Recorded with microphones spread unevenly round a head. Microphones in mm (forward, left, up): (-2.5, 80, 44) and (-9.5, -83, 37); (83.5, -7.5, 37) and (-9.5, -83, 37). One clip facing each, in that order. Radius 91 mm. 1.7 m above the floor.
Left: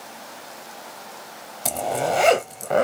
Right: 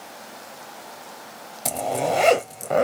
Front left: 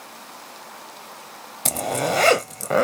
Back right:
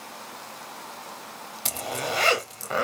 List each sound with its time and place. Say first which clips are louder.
1.6 s a zipper: even, front left 7 dB; 5° right, 0.7 m